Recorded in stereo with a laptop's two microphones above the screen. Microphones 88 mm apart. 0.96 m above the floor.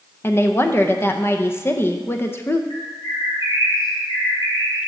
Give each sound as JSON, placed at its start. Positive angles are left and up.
{"t": 0.2, "sound": "a woman speaking", "side_deg": 30, "distance_m": 0.6}
{"t": 2.7, "sound": "a bird", "side_deg": 60, "distance_m": 3.0}